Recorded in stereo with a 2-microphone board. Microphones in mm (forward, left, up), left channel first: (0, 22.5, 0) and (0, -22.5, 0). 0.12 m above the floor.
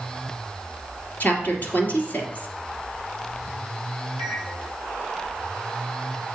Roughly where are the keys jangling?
I don't hear keys jangling.